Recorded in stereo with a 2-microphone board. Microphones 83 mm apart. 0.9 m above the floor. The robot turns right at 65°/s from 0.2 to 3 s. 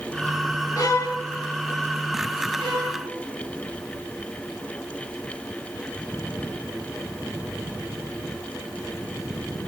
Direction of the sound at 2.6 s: 85° right.